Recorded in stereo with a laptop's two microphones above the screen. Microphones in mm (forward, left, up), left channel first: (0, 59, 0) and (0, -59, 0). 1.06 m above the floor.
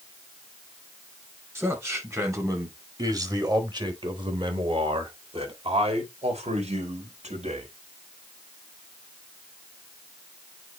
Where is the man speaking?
20° right (ahead or behind), 5 m; by 7.7 s 75° right (ahead or behind), 4 m.